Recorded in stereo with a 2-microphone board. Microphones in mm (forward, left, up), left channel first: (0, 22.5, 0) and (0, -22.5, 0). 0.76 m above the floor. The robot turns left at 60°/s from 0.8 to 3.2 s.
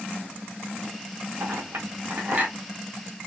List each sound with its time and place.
1.4 s a clink: 75° right (ahead or behind), 1.7 m; by 2.5 s 35° right (ahead or behind), 1.7 m